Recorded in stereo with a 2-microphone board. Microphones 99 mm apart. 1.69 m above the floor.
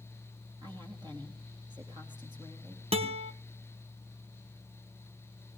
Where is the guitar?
75° right (ahead or behind), 1.7 m.